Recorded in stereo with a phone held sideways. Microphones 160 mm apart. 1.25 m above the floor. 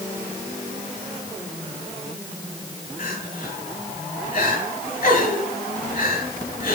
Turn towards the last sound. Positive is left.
turn(degrees=65)  # may be behind; listen again after turning